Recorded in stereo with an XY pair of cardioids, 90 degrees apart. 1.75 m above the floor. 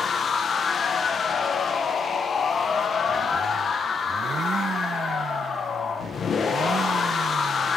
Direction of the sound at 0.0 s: 60° left.